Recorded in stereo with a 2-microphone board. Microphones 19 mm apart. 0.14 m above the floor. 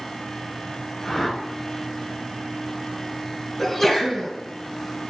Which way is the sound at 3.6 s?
5° left (ahead or behind).